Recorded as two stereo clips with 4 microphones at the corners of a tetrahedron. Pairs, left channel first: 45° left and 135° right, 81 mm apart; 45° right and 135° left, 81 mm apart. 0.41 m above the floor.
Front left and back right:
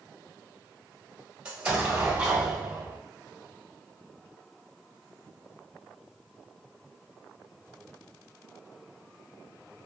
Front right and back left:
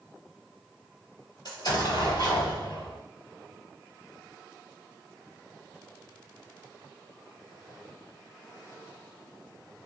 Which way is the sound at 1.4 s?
60° right.